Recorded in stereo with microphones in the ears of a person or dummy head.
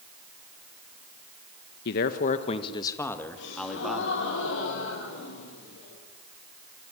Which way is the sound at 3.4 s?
70° left (ahead or behind).